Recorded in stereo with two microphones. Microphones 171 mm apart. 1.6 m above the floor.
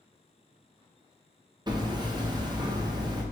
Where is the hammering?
25° right (ahead or behind), 0.8 m.